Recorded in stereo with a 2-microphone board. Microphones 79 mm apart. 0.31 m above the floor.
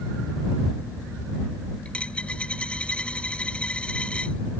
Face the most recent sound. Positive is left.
turn(degrees=15)  # may be behind; listen again after turning